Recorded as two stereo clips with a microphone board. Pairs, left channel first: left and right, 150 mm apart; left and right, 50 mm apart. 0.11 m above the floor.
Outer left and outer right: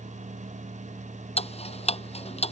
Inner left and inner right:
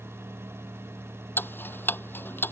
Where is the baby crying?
No baby crying in this recording.